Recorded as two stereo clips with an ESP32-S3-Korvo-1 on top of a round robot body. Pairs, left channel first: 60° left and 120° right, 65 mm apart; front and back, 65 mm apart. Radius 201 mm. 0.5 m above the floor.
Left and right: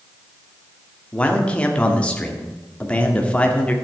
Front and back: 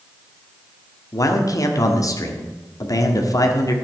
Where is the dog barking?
I don't hear a dog barking.